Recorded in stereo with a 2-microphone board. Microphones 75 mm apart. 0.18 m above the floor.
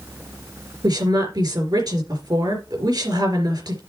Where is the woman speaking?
65° right (ahead or behind), 4 m.